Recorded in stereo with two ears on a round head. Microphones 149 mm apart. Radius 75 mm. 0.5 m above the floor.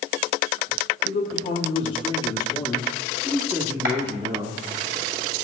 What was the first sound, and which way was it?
A man speaking, 45° left (ahead or behind).